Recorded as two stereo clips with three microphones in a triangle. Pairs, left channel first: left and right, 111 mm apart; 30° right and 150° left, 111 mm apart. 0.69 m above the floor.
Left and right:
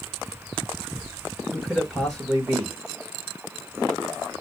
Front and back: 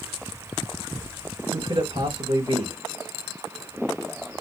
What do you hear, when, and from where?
1.5 s a man speaking: 170° left, 3 m